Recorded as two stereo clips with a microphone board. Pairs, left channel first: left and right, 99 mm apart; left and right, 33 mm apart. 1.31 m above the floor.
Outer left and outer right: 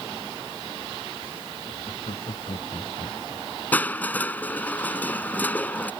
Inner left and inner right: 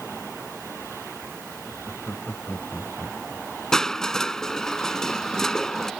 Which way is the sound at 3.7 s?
15° left (ahead or behind).